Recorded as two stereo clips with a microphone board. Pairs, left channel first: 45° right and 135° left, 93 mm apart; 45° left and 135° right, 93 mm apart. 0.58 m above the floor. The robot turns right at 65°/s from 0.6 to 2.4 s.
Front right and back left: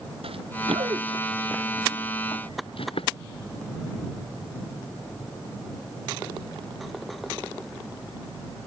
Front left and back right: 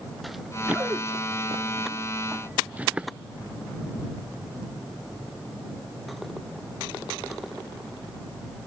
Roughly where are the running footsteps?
Behind left.